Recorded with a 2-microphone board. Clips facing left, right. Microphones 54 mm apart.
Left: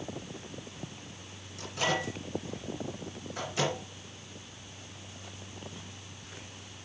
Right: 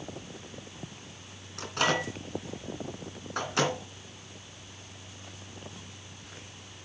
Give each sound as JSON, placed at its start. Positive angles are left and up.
{"t": 1.6, "sound": "a microwave", "side_deg": -75, "distance_m": 2.5}